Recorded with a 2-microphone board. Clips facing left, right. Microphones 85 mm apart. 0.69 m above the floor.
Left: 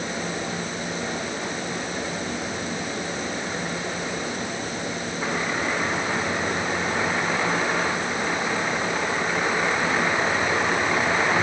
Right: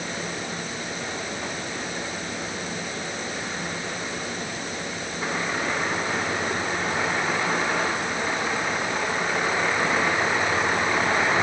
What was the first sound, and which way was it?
Only background noise.